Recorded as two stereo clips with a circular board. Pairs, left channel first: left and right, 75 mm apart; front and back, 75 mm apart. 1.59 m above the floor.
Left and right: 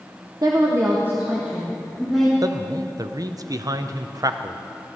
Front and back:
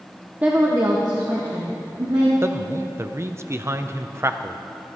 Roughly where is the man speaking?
Behind right.